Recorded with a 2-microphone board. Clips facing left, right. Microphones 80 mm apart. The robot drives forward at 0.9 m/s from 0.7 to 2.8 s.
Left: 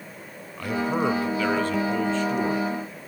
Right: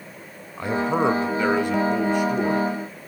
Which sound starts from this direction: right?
A man speaking, at 0.6 s.